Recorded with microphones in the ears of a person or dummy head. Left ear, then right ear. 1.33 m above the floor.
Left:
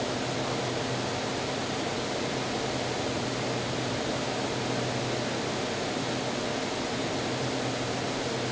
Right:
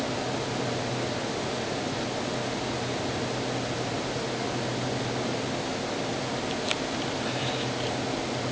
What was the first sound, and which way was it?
Only background noise.